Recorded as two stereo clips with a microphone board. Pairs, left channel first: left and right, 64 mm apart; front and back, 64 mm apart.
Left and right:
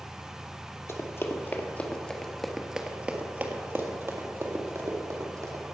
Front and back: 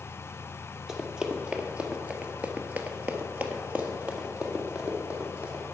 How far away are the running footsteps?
About 1.7 m.